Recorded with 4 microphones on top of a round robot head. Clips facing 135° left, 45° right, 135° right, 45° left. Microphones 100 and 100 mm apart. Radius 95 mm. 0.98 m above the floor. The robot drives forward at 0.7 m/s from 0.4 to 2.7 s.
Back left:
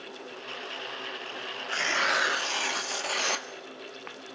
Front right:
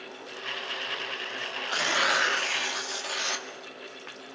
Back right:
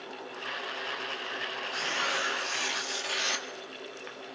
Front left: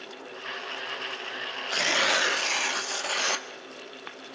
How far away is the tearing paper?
About 0.9 m.